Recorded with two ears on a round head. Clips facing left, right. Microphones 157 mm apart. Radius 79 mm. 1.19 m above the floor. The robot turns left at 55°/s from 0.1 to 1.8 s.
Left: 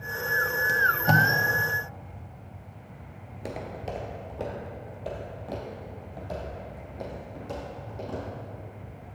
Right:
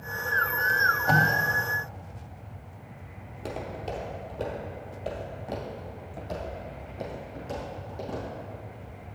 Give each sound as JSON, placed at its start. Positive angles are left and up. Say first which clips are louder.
{"t": 0.7, "sound": "tape being pulled", "louder": "even", "side_deg": 50, "distance_m": 0.7}
{"t": 3.3, "sound": "footsteps", "louder": "right 1 dB", "side_deg": 15, "distance_m": 1.3}